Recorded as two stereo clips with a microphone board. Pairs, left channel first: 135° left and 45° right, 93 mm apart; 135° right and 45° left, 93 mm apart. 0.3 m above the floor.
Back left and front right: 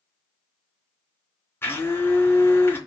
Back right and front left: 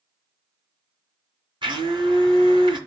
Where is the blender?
70° left, 2.5 m.